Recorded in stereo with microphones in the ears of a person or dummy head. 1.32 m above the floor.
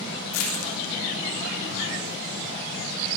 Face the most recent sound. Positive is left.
turn(degrees=85)